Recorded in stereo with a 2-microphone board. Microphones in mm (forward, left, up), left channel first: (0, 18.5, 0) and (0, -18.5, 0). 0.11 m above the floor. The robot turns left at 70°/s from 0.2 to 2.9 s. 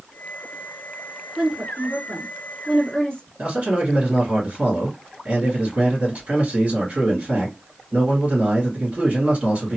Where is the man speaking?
40° right (ahead or behind), 2 m.